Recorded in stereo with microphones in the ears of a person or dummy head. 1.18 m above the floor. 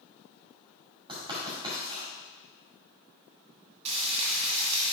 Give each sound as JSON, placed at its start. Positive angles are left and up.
{"t": 1.1, "sound": "writing", "side_deg": -25, "distance_m": 2.0}
{"t": 3.9, "sound": "frying", "side_deg": -35, "distance_m": 2.0}